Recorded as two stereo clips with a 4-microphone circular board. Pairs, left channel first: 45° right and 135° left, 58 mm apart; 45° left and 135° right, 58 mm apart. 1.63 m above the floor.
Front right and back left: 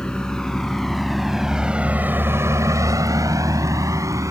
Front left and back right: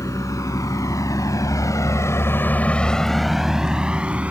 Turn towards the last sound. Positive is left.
turn(degrees=160)